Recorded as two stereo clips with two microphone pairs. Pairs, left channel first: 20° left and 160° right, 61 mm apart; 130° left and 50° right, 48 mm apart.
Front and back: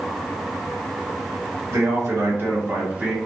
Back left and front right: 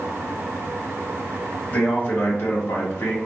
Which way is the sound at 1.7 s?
170° left.